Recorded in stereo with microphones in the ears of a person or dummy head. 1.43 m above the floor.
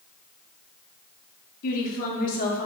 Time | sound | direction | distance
1.6 | a woman speaking | 50° left (ahead or behind) | 0.6 m